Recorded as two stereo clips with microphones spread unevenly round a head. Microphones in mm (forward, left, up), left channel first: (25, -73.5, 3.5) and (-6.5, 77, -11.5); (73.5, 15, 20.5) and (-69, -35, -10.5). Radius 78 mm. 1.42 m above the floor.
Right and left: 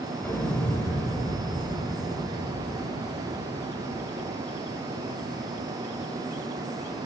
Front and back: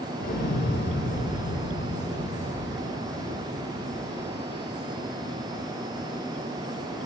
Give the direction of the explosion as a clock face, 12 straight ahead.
12 o'clock.